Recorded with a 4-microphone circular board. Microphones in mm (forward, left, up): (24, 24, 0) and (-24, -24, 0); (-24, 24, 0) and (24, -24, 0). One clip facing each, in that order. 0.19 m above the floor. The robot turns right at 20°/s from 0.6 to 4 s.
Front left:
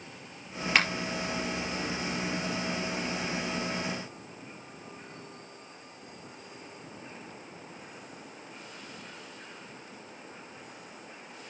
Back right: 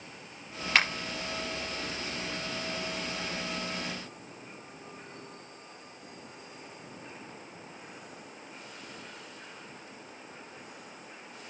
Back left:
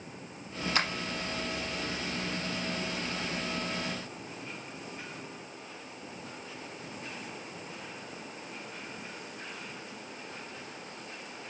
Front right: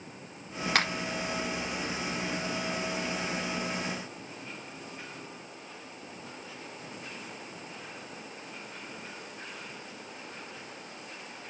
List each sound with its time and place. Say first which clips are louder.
0.8 s a finger snap: even, front right 3 dB; 45° right, 4 m